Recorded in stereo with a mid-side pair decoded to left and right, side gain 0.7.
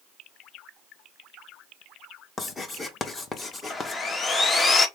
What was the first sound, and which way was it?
Writing, 25° left.